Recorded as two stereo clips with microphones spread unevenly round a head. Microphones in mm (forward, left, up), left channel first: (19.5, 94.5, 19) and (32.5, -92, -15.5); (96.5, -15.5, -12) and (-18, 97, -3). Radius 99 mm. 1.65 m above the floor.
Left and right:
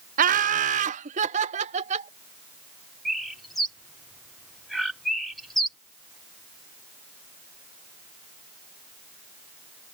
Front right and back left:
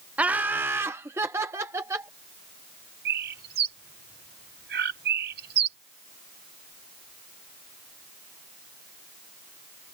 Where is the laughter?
140° right; by 2.1 s 145° right.